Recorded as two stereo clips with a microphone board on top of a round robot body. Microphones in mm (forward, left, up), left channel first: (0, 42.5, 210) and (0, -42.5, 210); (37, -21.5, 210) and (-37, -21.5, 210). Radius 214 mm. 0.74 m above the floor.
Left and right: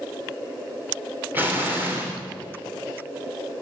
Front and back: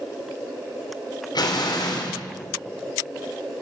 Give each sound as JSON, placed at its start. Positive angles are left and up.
{"t": 1.4, "sound": "an explosion", "azimuth_deg": -20, "distance_m": 3.5}